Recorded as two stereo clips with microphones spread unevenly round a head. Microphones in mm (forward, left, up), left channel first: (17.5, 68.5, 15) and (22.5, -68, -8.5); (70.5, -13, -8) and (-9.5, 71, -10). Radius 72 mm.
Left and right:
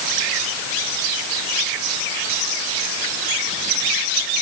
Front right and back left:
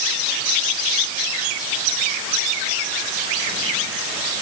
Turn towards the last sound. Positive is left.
No sound to turn to.